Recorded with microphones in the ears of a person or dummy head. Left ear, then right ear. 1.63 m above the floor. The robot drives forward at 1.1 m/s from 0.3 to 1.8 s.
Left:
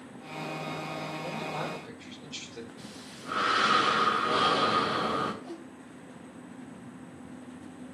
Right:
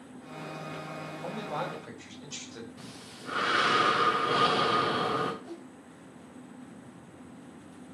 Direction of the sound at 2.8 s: 5° right (ahead or behind).